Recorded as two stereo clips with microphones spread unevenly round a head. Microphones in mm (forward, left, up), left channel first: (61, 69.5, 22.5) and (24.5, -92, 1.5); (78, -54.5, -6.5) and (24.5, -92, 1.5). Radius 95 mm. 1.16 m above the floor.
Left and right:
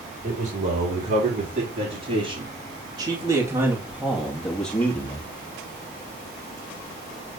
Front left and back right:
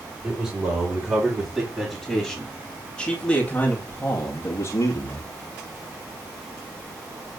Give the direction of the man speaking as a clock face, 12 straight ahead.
3 o'clock.